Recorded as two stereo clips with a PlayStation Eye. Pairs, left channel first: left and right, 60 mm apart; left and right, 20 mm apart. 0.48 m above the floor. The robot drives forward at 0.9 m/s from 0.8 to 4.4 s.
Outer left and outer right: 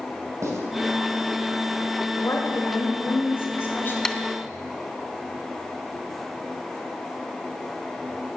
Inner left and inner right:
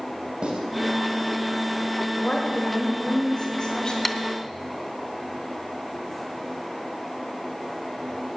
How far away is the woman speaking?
About 2.0 m.